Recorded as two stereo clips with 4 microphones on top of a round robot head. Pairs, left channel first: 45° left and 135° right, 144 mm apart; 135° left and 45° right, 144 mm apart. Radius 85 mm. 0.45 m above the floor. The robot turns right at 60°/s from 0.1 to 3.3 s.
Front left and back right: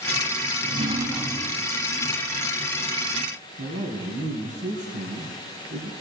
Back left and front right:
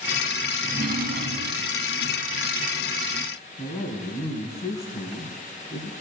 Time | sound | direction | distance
0.6 | a drawer | 90° right | 0.9 m
3.6 | a man speaking | 160° right | 3.5 m